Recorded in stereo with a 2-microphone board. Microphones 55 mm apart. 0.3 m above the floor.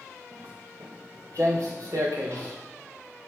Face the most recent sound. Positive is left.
turn(degrees=-50)  # may be behind; listen again after turning